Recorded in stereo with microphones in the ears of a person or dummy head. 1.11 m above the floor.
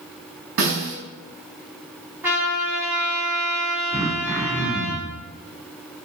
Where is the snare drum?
75° right (ahead or behind), 4.5 m.